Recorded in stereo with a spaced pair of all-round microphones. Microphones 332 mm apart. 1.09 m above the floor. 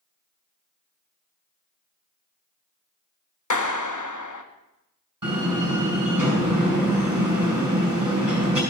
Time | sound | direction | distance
3.5 | a clap | 55° left (ahead or behind) | 1.0 m
5.2 | a door slam | 65° right (ahead or behind) | 4.5 m